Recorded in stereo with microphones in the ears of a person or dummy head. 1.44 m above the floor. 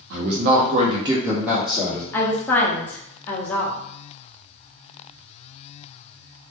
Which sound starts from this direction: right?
A man speaking, at 0.1 s.